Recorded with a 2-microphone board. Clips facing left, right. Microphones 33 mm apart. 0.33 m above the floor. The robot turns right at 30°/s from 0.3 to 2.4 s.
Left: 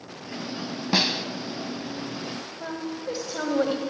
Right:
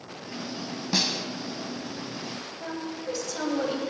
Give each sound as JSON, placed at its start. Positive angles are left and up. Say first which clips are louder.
{"t": 0.9, "sound": "a snare drum", "louder": "left 4 dB", "side_deg": 20, "distance_m": 0.6}
{"t": 2.6, "sound": "a woman speaking", "louder": "left 2 dB", "side_deg": 20, "distance_m": 1.4}